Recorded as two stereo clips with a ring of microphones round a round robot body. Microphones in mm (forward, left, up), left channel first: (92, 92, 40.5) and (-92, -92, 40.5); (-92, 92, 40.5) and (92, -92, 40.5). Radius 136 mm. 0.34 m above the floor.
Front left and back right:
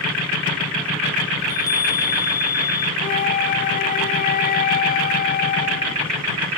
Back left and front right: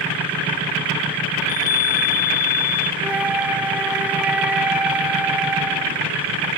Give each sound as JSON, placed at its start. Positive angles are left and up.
{"t": 1.4, "sound": "a chime", "azimuth_deg": 120}
{"t": 3.0, "sound": "a flute", "azimuth_deg": 35}